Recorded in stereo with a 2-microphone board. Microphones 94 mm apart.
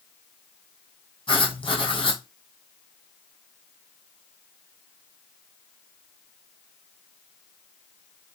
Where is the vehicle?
I don't hear a vehicle.